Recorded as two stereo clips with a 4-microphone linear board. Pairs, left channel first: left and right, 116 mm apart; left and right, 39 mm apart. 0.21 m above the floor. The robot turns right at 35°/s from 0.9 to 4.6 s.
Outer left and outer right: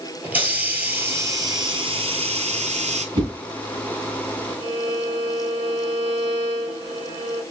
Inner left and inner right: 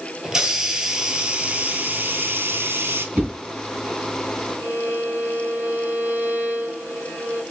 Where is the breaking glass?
No breaking glass in this recording.